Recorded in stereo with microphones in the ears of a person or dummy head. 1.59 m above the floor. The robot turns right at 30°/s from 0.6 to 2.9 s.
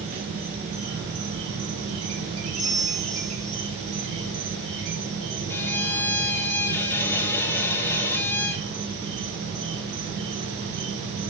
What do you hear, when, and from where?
0.0 s an insect: 135° right, 0.8 m; by 11.3 s 70° right, 0.8 m
2.6 s a bell: 5° right (ahead or behind), 1.4 m; by 3.6 s 10° right (ahead or behind), 1.4 m
5.5 s a violin: 10° left (ahead or behind), 0.5 m